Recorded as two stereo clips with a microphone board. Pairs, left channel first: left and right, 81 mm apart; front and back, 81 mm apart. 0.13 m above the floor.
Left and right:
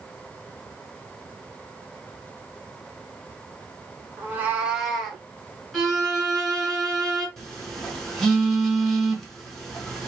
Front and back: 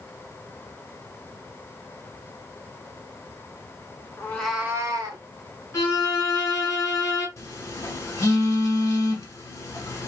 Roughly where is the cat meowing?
Ahead right.